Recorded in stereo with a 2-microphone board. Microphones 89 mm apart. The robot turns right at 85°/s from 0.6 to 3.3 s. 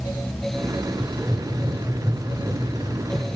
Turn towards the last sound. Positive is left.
turn(degrees=25)  # may be behind; listen again after turning